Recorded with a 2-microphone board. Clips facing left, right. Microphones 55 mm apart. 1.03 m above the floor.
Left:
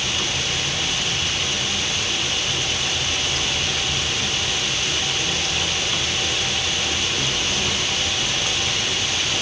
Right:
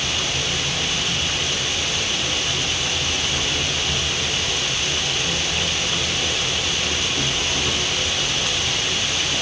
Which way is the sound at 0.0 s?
10° right (ahead or behind).